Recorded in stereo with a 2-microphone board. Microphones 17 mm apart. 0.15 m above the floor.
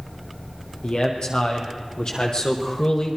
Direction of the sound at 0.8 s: 75° left (ahead or behind).